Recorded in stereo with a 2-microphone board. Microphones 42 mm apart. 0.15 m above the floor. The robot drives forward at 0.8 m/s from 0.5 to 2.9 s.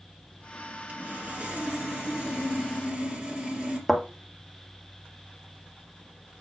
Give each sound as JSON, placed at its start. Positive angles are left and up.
{"t": 0.9, "sound": "sawing", "side_deg": -40, "distance_m": 1.5}
{"t": 3.9, "sound": "a thud", "side_deg": -5, "distance_m": 1.3}